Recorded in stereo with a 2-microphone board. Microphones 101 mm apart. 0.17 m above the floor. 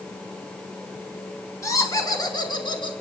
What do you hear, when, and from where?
1.6 s laughter: 30° left (ahead or behind), 1.8 m; by 2.9 s 50° left (ahead or behind), 1.9 m